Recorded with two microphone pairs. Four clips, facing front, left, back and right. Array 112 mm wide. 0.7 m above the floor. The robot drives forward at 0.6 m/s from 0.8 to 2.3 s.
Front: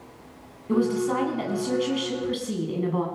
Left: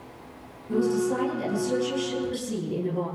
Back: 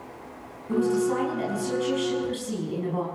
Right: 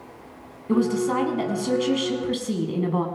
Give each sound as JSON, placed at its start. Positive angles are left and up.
{"t": 0.7, "sound": "a woman speaking", "azimuth_deg": -75, "distance_m": 7.0}